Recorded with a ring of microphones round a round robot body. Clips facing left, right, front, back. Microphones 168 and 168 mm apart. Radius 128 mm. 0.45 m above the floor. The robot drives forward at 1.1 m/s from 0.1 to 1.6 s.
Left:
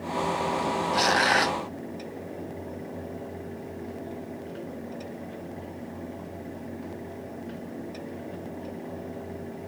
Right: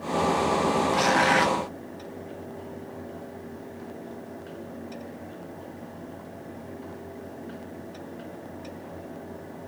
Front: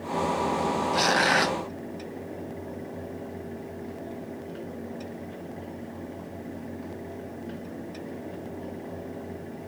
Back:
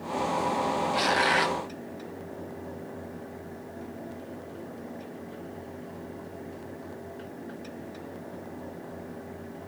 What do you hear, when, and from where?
0.9 s tearing paper: 40° left; by 1.6 s 45° left